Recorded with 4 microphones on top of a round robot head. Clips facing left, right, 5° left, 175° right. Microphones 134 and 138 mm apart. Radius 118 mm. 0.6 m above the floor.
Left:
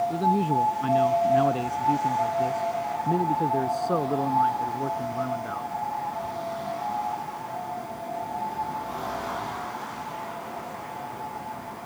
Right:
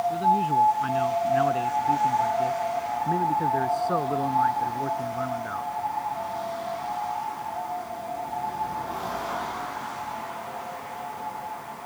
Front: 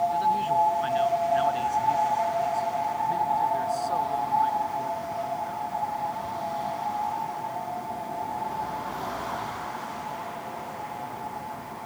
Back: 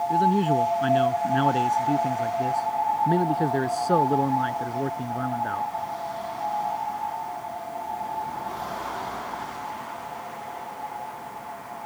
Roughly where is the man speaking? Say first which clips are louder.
Right 1 dB, back 3 dB; behind left.